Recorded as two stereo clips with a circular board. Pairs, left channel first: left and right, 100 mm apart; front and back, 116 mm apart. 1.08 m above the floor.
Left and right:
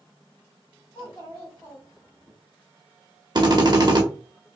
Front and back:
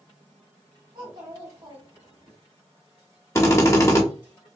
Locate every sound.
0.9 s a child speaking: 145° left, 1.2 m
3.4 s a drill: 60° right, 0.8 m